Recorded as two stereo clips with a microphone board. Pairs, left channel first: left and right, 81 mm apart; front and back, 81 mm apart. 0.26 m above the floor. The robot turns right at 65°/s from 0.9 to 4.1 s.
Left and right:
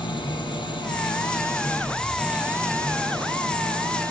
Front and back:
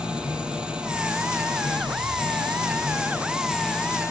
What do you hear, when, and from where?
0.0 s an engine running: 100° left, 4.5 m; by 4.1 s 50° right, 4.5 m